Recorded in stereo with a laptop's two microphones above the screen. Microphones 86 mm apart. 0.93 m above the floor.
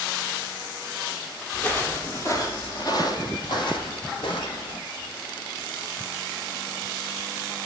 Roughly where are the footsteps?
Centre.